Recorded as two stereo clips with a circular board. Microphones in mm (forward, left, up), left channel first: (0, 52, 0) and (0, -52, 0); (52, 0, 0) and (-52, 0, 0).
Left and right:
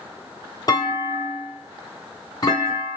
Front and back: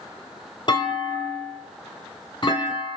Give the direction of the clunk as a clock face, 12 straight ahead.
11 o'clock.